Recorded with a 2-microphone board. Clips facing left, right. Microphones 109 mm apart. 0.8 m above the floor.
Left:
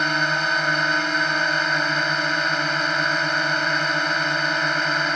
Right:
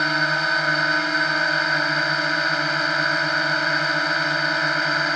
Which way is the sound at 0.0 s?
Centre (ahead or behind).